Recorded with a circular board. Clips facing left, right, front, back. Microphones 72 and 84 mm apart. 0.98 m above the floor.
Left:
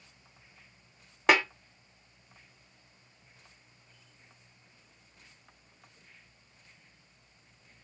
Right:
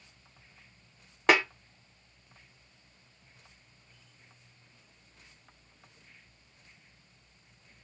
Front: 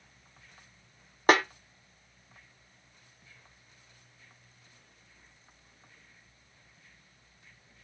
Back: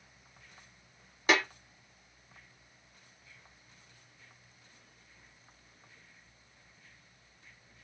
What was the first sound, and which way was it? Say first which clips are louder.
A snare drum: even, front 5 dB; straight ahead.